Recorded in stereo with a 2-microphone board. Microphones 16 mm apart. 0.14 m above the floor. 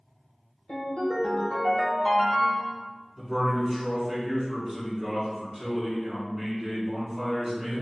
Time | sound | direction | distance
0.7 | a ringtone | 75° left (ahead or behind) | 1.5 m
3.2 | a man speaking | 5° right (ahead or behind) | 1.3 m